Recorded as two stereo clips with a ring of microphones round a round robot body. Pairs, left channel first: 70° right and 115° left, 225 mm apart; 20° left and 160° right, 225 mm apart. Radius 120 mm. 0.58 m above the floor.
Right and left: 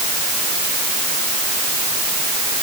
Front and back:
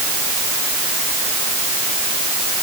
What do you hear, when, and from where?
Only background noise.